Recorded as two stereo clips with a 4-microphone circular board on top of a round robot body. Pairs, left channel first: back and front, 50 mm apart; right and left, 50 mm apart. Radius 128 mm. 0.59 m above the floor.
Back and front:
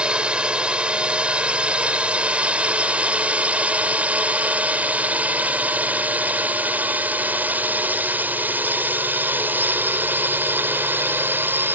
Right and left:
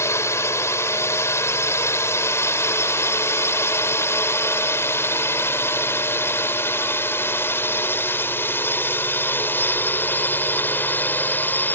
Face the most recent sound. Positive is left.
turn(degrees=-40)